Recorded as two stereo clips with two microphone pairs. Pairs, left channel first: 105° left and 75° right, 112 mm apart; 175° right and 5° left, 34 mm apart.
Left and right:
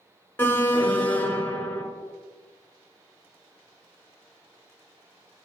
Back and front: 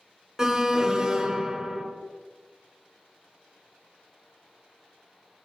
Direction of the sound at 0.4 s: 50° left.